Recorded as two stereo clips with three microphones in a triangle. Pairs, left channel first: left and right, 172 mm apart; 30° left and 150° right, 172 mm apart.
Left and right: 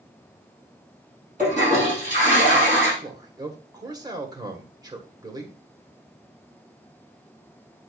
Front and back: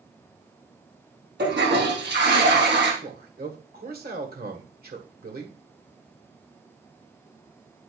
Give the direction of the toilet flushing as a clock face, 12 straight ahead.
5 o'clock.